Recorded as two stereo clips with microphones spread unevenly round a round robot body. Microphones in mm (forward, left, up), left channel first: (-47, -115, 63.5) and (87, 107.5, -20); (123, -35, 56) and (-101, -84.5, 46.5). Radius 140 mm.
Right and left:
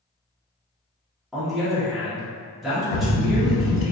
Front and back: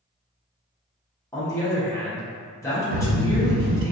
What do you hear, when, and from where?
1.3 s a man speaking: 70° left, 0.8 m
2.9 s a bird: 135° right, 0.6 m